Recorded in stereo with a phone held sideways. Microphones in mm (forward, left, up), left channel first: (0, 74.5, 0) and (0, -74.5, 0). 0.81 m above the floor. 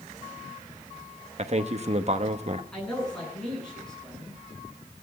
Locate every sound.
1.4 s a man speaking: 50° right (ahead or behind), 1.1 m
2.7 s a man speaking: 5° left (ahead or behind), 10 m